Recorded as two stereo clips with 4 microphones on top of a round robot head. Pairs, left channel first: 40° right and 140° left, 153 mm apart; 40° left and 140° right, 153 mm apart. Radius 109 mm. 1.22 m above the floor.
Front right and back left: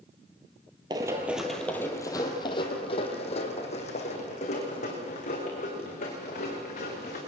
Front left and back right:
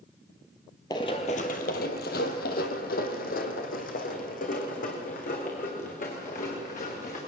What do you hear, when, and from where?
0.9 s running footsteps: 95° left, 1.3 m; by 7.2 s straight ahead, 6 m